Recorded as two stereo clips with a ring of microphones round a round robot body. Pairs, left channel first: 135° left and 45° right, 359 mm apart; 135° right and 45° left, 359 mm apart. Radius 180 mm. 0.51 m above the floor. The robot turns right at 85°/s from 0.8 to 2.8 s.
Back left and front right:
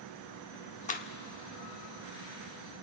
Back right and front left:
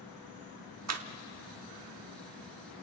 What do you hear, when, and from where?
0.9 s a clap: 70° left, 1.1 m; by 1.1 s 85° left, 1.1 m